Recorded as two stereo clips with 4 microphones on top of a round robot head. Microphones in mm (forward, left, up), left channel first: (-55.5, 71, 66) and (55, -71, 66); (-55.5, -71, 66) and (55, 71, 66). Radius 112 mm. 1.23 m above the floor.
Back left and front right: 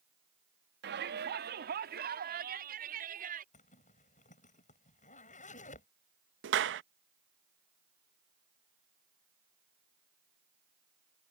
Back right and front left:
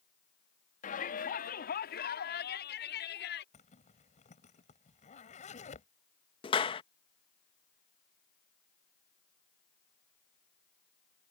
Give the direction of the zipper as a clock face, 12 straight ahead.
6 o'clock.